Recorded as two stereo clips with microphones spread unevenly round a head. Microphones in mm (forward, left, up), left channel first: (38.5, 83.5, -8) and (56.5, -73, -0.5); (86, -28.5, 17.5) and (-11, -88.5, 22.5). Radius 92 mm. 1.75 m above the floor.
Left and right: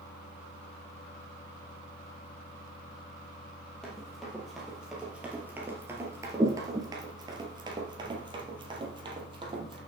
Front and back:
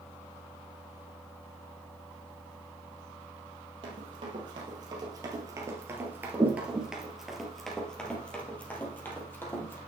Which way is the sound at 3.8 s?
175° right.